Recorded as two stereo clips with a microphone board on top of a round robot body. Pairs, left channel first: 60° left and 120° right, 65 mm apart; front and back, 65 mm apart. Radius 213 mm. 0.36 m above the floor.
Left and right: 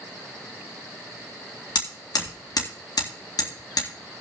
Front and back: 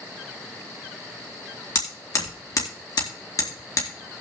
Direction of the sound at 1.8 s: 40° left.